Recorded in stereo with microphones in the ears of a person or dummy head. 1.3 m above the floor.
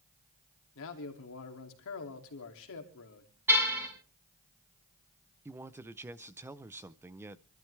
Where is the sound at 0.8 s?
65° left (ahead or behind), 2.5 m.